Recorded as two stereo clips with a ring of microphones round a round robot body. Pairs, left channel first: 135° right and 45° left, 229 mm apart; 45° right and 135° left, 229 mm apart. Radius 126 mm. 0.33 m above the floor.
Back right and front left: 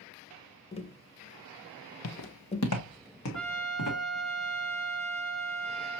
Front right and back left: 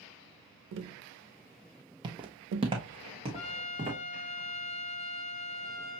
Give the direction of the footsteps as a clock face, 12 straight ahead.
5 o'clock.